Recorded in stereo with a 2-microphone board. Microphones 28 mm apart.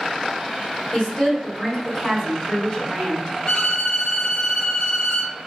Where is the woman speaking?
10° left (ahead or behind), 1.3 m.